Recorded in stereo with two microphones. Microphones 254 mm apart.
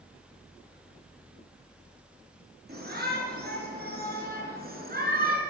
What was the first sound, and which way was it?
A shout, 40° right (ahead or behind).